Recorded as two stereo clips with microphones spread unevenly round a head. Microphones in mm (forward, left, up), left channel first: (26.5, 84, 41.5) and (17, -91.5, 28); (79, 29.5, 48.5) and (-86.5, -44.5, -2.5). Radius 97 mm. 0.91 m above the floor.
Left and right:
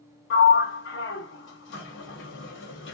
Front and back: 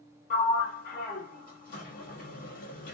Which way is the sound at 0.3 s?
70° left.